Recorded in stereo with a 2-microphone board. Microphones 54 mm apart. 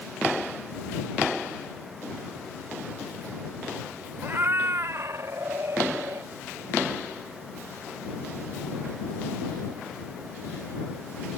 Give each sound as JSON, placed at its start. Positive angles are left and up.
{"t": 4.2, "sound": "a cat meowing", "side_deg": -40}